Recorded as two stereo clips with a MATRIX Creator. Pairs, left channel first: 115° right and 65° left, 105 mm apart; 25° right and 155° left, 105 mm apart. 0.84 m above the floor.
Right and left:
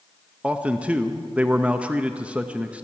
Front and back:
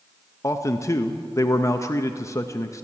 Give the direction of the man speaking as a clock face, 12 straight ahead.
12 o'clock.